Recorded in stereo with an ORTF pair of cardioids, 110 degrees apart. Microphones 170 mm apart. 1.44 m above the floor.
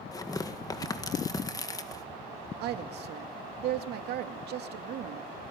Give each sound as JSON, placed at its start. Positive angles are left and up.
{"t": 0.1, "sound": "tearing paper", "azimuth_deg": 20, "distance_m": 2.0}
{"t": 2.6, "sound": "a woman speaking", "azimuth_deg": -70, "distance_m": 2.5}